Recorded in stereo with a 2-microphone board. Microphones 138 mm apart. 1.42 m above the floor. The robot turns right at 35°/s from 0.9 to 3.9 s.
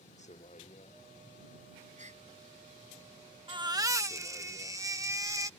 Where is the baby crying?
35° right (ahead or behind); by 5.5 s 20° right (ahead or behind).